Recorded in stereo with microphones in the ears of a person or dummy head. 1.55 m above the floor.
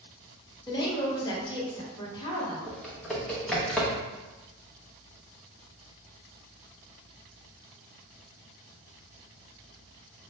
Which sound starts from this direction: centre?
Typing on a keyboard, at 2.7 s.